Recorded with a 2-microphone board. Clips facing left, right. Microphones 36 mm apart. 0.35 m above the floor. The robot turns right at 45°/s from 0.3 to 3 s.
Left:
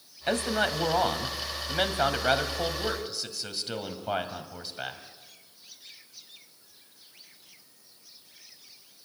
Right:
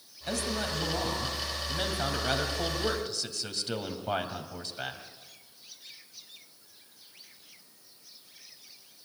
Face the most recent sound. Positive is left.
turn(degrees=175)